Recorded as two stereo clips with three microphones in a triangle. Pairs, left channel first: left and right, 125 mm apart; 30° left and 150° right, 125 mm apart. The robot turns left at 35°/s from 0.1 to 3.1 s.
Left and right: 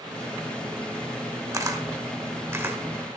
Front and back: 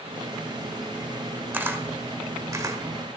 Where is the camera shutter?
100° right, 0.9 m; by 2.8 s 140° right, 0.9 m.